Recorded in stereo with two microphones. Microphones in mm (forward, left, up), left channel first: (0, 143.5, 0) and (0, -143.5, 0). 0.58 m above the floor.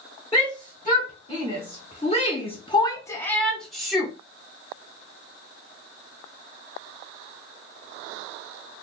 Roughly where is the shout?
Centre.